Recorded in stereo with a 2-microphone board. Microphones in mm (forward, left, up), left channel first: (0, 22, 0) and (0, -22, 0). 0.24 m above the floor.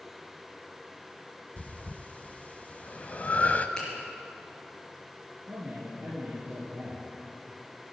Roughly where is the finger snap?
Centre.